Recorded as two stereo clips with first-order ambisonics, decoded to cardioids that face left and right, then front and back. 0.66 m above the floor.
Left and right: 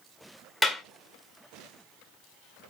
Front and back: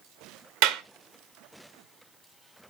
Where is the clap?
Straight behind, 1.4 m.